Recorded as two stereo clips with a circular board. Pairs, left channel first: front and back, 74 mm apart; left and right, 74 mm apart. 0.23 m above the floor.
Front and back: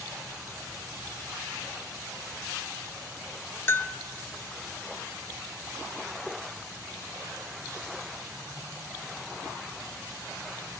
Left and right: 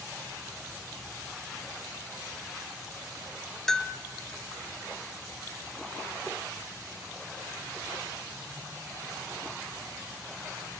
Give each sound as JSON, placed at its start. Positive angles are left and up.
{"t": 3.7, "sound": "a bell", "azimuth_deg": 10, "distance_m": 1.0}